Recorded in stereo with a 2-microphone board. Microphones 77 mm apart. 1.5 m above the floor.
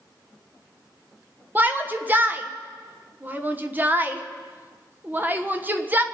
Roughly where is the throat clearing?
No throat clearing in this recording.